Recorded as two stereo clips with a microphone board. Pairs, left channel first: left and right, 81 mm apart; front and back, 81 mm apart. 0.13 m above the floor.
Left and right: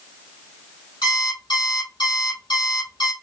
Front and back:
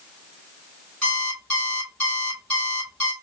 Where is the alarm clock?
75° left, 3 m.